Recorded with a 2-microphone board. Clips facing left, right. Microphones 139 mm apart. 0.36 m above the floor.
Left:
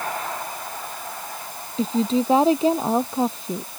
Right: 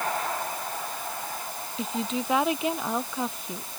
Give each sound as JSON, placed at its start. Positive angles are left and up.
{"t": 1.8, "sound": "a woman speaking", "side_deg": 30}